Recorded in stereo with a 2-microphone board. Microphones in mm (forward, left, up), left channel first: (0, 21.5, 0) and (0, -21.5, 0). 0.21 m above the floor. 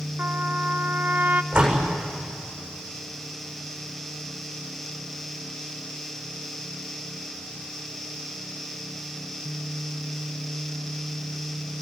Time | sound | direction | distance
0.2 | a trumpet | 45° right (ahead or behind) | 0.8 m
1.5 | a door slam | 15° right (ahead or behind) | 8 m